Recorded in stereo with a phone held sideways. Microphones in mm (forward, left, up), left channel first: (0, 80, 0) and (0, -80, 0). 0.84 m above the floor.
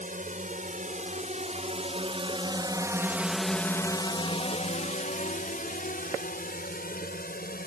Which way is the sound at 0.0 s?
55° right (ahead or behind).